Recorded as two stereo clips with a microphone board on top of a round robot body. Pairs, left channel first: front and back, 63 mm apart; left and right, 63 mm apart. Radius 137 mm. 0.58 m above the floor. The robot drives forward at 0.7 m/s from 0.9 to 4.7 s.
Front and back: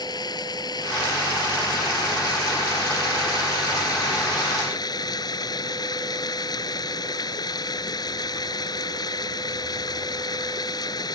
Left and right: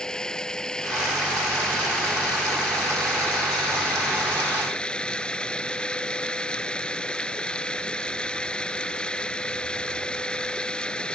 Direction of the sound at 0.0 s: 15° left.